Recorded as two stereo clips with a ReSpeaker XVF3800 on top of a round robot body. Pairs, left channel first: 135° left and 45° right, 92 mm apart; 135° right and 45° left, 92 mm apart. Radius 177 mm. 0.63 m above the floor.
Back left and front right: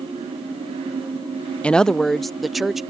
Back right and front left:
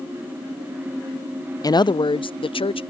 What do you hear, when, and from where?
1.6 s a woman speaking: 150° right; by 2.8 s 130° right